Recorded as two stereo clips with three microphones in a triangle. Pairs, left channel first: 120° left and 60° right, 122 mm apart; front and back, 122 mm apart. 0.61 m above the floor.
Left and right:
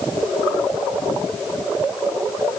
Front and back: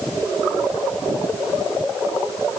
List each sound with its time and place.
Only background noise.